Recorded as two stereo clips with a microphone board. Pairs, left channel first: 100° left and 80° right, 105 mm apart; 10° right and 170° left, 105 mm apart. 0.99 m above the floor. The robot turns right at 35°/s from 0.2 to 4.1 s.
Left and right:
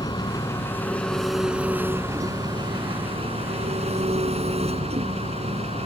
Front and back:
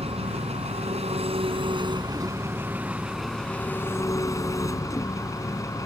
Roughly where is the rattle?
I don't hear a rattle.